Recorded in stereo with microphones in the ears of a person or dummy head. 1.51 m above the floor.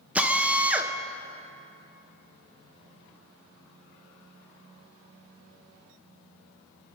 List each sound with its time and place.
0.1 s a drill: 10° right (ahead or behind), 1.3 m